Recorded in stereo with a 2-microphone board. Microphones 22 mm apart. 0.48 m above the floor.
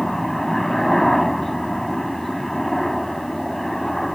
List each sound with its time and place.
0.0 s a helicopter: 10° left (ahead or behind)